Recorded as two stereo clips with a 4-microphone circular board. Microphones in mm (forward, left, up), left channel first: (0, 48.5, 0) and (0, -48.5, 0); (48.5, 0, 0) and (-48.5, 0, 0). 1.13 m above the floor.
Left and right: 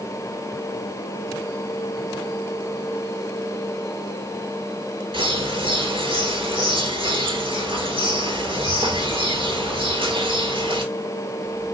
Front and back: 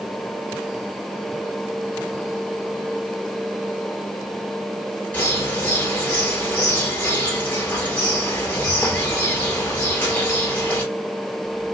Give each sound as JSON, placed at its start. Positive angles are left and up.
{"t": 5.1, "sound": "a bird", "azimuth_deg": -70, "distance_m": 2.5}